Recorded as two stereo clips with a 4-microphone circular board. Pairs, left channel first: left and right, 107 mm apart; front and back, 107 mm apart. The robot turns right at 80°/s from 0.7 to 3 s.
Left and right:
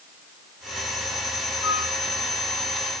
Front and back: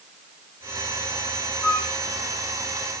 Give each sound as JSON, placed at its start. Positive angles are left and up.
{"t": 1.6, "sound": "a flute", "azimuth_deg": 50, "distance_m": 5.0}